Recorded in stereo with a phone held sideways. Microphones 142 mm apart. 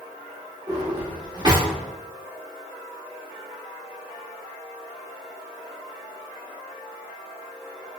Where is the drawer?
30° right (ahead or behind), 1.3 m.